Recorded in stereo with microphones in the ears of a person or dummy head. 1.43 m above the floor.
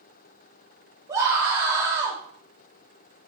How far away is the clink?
No clink in this recording.